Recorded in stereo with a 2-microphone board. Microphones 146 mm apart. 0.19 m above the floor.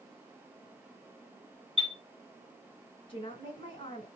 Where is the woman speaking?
40° left (ahead or behind), 1.7 m.